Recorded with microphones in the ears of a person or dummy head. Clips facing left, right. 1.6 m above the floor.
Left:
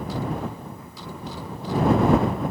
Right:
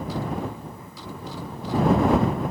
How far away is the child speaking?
No child speaking in this recording.